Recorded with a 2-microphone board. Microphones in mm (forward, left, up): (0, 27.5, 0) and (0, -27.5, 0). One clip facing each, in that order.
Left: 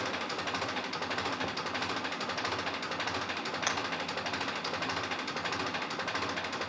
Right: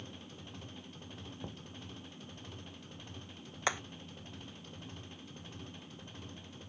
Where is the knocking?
35° left (ahead or behind).